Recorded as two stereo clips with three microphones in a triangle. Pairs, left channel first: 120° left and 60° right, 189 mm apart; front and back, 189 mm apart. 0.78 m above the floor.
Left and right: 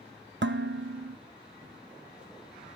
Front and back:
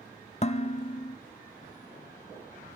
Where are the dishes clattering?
55° right, 0.6 m.